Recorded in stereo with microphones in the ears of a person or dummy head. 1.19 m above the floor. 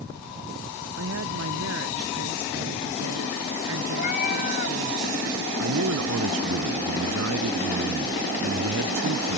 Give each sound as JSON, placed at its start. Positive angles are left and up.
{"t": 0.9, "sound": "a woman speaking", "side_deg": -70}
{"t": 4.0, "sound": "a cat meowing", "side_deg": 45}
{"t": 5.6, "sound": "a man speaking", "side_deg": -85}